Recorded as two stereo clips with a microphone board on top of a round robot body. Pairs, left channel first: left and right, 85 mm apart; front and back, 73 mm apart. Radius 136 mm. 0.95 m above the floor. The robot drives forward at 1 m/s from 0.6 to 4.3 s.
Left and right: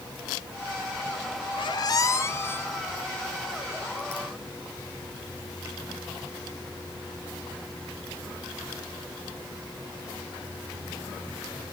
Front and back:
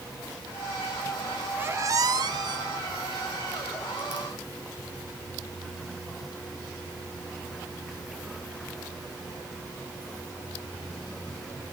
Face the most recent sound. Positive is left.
turn(degrees=170)